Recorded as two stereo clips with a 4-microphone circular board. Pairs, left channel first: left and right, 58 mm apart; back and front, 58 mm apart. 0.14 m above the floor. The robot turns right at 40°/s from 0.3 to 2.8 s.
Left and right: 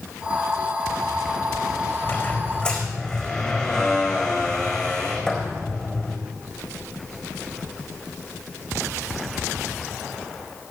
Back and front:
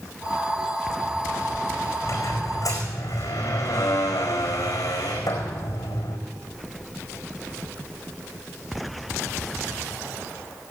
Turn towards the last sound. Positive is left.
turn(degrees=170)